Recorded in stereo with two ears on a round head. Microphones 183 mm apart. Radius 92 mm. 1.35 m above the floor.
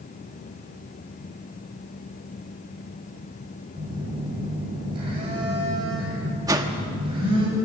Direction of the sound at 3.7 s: 25° right (ahead or behind).